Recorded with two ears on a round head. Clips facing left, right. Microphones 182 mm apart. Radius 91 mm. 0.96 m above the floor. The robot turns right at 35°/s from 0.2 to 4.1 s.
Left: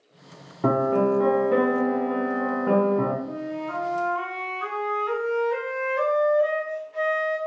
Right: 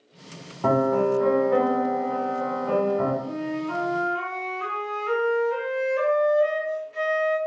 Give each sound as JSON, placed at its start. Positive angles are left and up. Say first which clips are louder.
{"t": 0.6, "sound": "a piano", "louder": "even", "azimuth_deg": 30, "distance_m": 0.9}
{"t": 3.2, "sound": "a flute", "louder": "right 2 dB", "azimuth_deg": -80, "distance_m": 1.4}